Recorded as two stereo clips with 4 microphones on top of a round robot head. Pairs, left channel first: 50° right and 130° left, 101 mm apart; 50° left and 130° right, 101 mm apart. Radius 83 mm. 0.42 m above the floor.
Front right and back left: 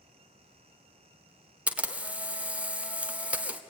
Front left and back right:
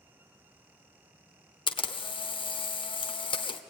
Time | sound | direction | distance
1.7 | a camera shutter | 55° left | 1.3 m